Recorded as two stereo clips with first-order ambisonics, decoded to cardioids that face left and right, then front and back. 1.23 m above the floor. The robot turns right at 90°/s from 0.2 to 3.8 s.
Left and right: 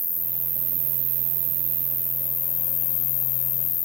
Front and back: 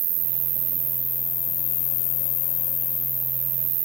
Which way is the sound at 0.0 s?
175° right.